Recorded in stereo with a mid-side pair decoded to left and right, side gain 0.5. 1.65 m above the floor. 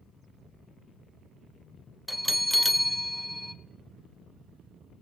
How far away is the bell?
About 0.6 m.